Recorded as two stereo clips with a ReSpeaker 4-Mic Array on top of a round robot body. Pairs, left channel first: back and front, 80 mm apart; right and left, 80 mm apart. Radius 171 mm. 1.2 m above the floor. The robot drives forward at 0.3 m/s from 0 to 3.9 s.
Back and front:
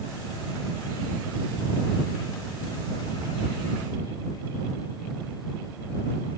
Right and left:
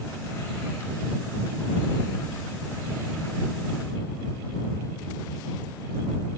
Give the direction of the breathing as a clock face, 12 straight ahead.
No breathing in this recording.